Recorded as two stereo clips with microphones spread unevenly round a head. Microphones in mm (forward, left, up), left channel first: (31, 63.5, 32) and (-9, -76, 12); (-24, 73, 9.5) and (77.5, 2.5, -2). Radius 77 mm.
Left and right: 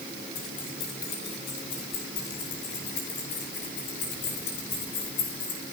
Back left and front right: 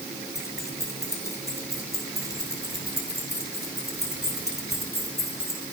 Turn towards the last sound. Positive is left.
turn(degrees=80)